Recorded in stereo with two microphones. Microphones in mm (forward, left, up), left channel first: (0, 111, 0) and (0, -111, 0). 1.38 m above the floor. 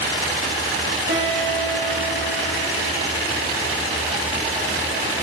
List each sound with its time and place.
1.1 s a guitar: 55° right (ahead or behind), 3.5 m